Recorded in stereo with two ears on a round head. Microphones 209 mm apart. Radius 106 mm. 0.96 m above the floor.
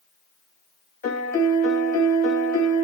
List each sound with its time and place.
1.0 s a piano: 40° left (ahead or behind), 2 m